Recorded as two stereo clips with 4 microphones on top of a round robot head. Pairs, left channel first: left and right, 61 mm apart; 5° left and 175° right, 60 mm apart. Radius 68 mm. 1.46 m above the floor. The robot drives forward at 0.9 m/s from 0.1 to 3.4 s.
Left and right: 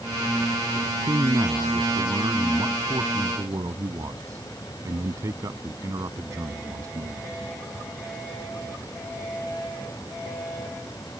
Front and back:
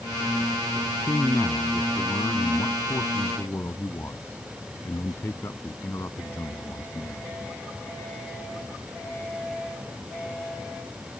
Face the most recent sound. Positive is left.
turn(degrees=-60)